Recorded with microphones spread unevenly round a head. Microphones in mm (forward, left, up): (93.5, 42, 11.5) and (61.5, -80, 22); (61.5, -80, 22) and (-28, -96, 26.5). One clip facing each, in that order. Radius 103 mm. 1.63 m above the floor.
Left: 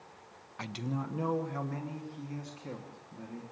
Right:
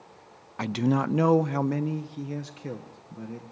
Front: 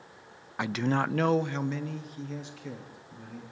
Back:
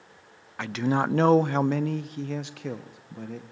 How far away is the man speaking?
About 0.5 m.